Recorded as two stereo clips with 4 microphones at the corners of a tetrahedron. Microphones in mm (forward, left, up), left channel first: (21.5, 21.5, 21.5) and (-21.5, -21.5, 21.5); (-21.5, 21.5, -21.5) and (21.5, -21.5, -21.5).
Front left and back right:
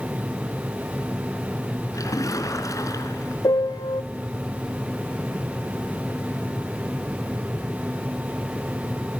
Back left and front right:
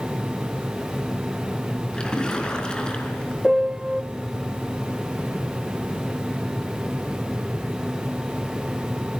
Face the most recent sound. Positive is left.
turn(degrees=40)